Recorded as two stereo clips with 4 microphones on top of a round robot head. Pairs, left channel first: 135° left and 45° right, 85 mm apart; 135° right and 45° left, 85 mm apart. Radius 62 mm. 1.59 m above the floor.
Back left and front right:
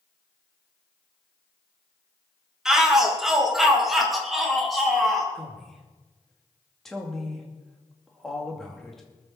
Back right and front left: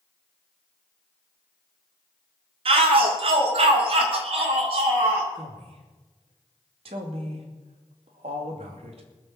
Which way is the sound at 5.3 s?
50° left.